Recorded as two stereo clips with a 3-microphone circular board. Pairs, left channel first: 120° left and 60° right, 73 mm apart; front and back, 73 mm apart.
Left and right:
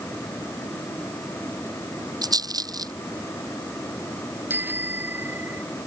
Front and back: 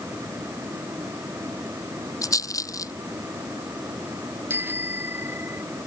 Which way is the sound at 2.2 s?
35° right.